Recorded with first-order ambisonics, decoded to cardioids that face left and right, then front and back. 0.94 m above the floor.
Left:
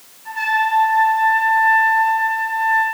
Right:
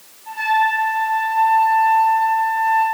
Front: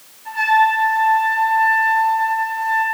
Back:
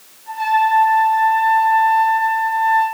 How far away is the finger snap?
I don't hear a finger snap.